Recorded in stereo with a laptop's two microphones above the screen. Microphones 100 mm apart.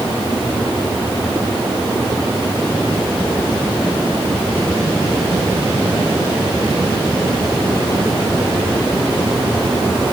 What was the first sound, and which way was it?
Only background noise.